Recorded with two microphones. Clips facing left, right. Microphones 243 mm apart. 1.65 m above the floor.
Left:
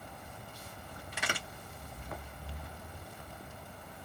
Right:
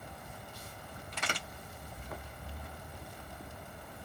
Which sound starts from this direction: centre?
A crack, at 1.1 s.